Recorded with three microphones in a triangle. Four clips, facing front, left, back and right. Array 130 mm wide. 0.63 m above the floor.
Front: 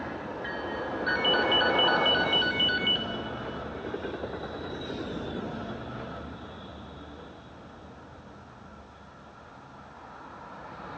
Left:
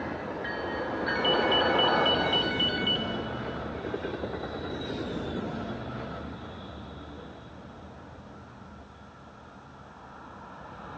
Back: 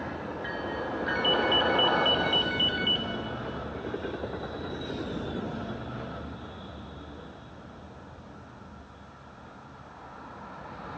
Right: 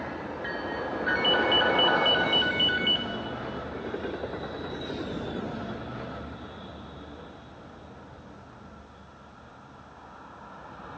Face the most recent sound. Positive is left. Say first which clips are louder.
# right 1 dB, front 1 dB
turn(degrees=-50)